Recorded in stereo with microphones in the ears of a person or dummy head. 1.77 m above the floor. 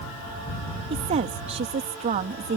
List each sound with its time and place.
0.9 s a woman speaking: 40° right (ahead or behind)